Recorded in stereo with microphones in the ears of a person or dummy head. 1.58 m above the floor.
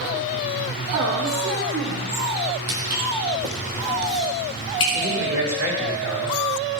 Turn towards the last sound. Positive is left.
turn(degrees=-75)  # may be behind; listen again after turning